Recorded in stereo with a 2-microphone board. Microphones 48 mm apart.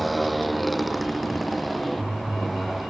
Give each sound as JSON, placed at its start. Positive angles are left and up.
{"t": 0.0, "sound": "a motorcycle", "side_deg": 0}